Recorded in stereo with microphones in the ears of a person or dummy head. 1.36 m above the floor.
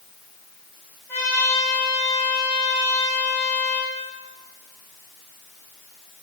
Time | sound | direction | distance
1.1 | a trumpet | 10° left (ahead or behind) | 4.5 m